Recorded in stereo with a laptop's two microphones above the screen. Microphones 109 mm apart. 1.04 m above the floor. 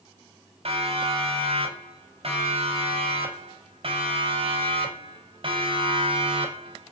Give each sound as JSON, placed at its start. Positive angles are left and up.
{"t": 0.7, "sound": "a siren", "side_deg": -60, "distance_m": 8.0}